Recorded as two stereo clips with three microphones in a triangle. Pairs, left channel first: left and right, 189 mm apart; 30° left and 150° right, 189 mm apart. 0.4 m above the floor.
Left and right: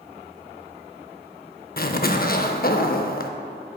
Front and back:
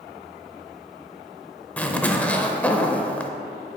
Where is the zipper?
110° left, 0.5 m.